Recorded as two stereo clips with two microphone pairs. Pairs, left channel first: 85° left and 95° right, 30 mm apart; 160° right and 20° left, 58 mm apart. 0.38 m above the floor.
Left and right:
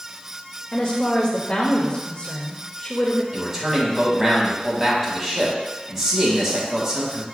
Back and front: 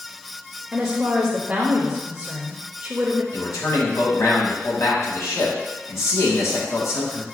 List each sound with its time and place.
0.7 s a woman speaking: 80° left, 1.0 m
3.3 s a man speaking: 175° right, 2.5 m